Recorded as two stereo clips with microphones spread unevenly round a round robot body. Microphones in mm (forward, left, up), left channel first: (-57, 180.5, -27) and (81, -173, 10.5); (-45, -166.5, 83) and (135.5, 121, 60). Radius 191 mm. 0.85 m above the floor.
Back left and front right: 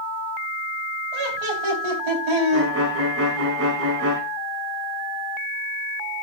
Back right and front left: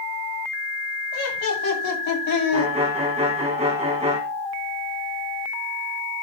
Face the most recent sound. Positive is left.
turn(degrees=-15)